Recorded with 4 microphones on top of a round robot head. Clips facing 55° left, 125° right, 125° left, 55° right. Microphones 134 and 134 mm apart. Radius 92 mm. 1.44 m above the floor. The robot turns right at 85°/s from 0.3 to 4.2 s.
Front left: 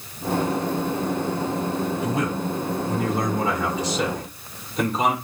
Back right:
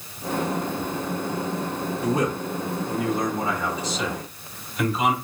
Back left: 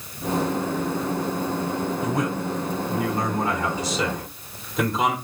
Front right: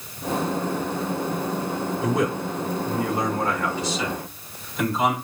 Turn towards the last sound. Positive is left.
turn(degrees=105)